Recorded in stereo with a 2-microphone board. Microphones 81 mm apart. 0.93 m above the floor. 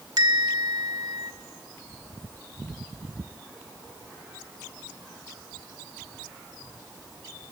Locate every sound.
0.2 s a bell: 60° right (ahead or behind), 1.4 m